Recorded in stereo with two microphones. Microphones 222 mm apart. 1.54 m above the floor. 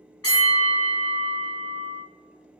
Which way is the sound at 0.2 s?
80° left.